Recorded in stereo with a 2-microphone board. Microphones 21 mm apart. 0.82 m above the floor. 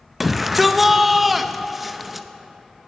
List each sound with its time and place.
0.2 s a shout: 5° right (ahead or behind), 0.6 m